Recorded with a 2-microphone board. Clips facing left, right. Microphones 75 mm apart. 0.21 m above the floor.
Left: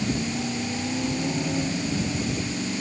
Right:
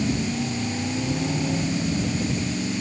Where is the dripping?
I don't hear dripping.